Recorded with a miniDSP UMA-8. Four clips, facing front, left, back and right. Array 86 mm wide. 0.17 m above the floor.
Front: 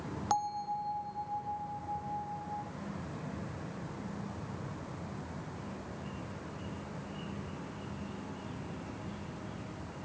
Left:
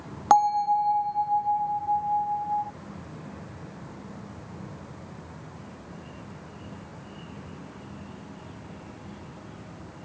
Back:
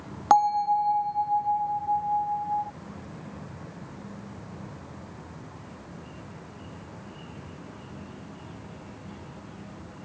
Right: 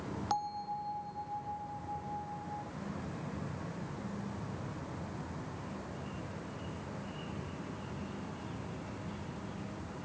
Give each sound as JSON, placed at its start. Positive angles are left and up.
{"t": 0.3, "sound": "a bell", "azimuth_deg": 135}